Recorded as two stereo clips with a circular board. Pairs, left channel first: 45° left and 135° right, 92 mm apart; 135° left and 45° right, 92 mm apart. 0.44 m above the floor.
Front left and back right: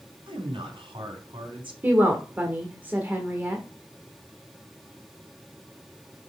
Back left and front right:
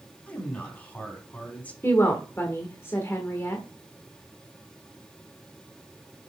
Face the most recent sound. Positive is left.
turn(degrees=175)